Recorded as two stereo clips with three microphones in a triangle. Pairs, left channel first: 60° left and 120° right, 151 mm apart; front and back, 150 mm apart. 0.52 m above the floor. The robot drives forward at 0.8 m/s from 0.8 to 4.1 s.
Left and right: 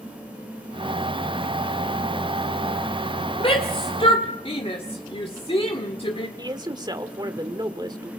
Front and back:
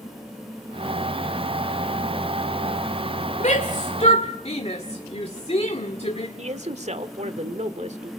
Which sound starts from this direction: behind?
A man speaking, at 6.4 s.